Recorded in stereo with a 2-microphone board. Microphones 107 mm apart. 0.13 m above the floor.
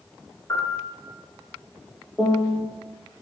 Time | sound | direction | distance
0.5 | a piano | 25° left (ahead or behind) | 1.4 m
2.2 | a piano | 5° left (ahead or behind) | 0.7 m